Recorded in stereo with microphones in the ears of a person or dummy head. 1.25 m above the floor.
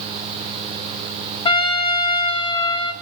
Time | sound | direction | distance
1.4 | a trumpet | 25° left (ahead or behind) | 1.2 m